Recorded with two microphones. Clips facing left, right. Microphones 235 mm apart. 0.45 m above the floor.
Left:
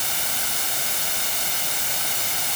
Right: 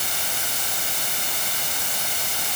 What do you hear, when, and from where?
Only background noise.